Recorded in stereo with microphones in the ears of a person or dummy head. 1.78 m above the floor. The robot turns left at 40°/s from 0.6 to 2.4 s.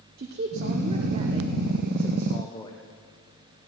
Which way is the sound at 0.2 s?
130° right.